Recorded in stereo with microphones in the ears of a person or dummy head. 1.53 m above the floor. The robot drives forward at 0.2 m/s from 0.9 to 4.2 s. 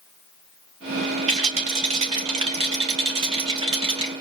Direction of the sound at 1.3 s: 35° right (ahead or behind).